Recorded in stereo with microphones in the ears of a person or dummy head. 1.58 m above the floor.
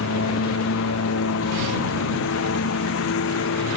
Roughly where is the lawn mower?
Left.